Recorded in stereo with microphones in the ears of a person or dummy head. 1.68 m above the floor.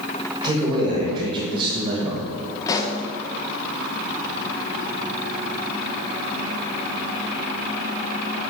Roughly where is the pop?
Left.